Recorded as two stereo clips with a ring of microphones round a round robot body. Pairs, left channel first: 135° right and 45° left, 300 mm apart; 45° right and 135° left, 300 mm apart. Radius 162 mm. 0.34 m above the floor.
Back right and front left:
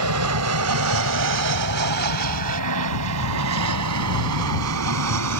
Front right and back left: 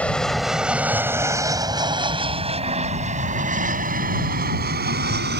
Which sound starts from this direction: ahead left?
An aircraft, at 0.0 s.